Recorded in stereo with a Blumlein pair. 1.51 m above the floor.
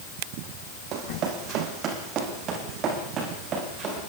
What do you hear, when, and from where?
0.9 s running footsteps: 35° right, 5 m; by 4.0 s 30° right, 9 m